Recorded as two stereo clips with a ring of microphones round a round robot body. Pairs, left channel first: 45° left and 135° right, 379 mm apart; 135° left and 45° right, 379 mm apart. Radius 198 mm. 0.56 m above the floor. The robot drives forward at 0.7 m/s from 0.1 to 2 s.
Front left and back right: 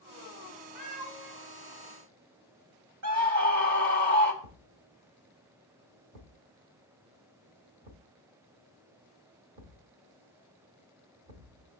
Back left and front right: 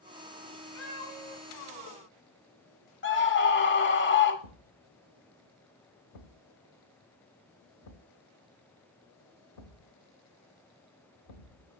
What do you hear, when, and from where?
0.8 s a cat meowing: 170° right, 3 m; by 1.4 s 175° right, 3.5 m
3.0 s a scream: 170° right, 2.5 m
4.4 s a thud: 175° left, 1.0 m